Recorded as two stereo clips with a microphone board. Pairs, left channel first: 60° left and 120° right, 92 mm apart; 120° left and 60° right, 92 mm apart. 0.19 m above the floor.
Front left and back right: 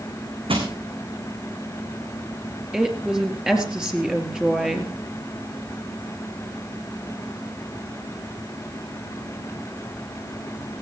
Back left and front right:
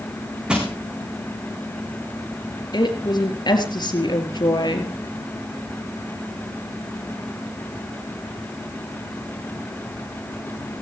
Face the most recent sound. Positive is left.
turn(degrees=155)